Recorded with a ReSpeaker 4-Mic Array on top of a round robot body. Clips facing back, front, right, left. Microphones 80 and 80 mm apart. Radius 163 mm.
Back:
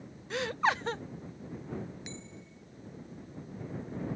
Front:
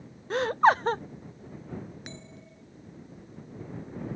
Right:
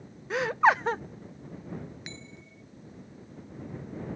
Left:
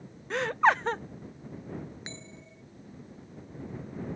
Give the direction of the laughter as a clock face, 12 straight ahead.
12 o'clock.